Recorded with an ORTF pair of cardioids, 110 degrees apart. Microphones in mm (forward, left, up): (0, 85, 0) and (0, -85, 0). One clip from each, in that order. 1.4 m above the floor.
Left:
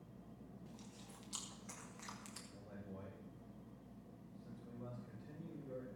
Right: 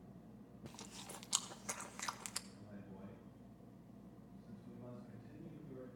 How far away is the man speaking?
About 6 m.